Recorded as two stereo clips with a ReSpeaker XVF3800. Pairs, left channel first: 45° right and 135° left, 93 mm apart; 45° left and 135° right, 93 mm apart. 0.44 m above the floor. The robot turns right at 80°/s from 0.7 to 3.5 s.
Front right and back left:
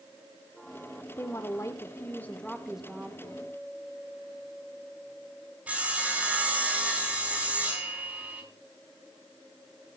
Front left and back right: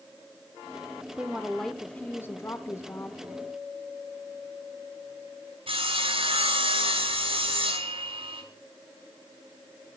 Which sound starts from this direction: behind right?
Sawing, at 5.7 s.